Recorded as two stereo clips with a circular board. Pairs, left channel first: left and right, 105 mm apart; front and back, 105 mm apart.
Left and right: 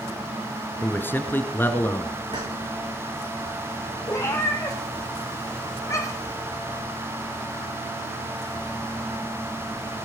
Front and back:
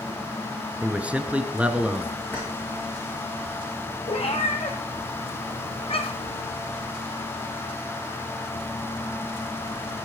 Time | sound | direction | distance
0.8 | a man speaking | 120° left | 1.1 m
2.3 | keys jangling | 75° right | 8.5 m
4.1 | a cat meowing | 30° left | 1.9 m